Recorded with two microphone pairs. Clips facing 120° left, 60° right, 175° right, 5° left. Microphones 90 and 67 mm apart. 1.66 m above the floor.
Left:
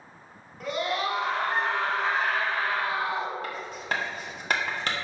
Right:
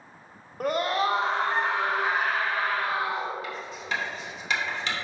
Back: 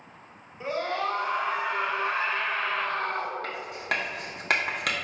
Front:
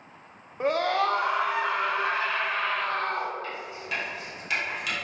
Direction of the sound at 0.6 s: 25° right.